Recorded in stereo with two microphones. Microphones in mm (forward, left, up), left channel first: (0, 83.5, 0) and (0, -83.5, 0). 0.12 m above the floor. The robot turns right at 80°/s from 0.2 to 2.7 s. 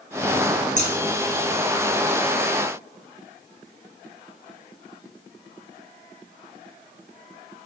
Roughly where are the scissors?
Left.